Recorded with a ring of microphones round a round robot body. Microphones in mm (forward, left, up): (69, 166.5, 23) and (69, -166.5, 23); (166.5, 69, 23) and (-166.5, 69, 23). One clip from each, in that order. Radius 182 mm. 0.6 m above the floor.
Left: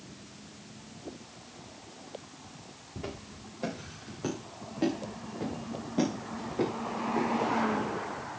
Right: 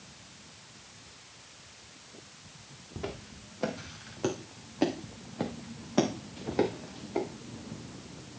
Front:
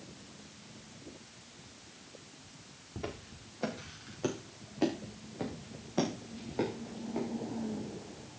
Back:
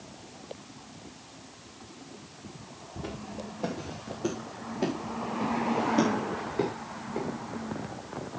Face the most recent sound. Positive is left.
turn(degrees=-90)